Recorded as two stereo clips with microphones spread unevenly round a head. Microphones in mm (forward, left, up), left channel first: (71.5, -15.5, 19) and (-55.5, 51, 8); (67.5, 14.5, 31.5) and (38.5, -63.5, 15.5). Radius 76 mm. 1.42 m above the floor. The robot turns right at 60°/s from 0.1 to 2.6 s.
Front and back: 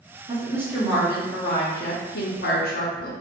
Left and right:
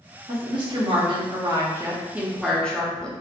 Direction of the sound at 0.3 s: 155° right.